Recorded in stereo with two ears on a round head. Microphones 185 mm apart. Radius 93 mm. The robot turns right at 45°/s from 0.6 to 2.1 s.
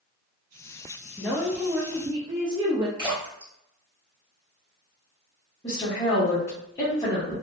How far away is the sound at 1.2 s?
About 0.6 m.